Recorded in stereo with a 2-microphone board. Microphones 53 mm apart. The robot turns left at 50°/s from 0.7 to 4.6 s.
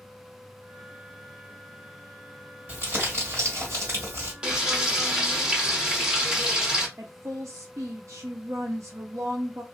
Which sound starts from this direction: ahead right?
Crumpling, at 2.7 s.